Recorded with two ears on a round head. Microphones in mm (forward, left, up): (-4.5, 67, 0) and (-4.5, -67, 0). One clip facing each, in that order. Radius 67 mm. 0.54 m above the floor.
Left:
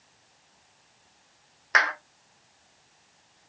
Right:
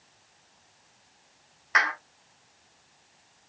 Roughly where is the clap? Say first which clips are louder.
Left 1 dB; left.